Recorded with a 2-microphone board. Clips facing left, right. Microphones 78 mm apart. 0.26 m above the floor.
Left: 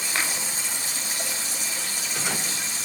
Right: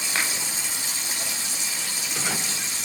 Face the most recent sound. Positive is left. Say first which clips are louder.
# even
turn(degrees=45)  # may be behind; listen again after turning